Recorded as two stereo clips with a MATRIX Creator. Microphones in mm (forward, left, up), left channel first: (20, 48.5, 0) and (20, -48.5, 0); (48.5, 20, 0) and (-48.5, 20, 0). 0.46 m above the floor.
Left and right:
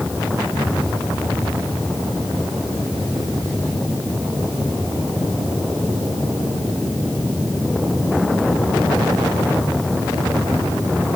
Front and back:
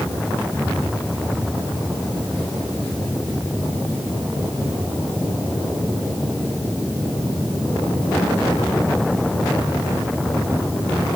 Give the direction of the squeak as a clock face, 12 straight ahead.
I don't hear a squeak.